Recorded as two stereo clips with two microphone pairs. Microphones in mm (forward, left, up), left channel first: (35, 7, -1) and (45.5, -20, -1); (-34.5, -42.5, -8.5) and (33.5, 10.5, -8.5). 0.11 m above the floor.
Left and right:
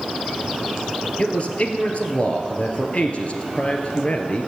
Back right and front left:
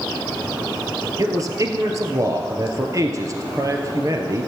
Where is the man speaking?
80° left, 1.7 m.